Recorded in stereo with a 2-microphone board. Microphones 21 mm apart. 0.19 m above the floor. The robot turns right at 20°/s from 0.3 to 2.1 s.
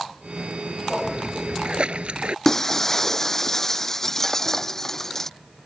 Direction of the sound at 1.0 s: 40° right (ahead or behind).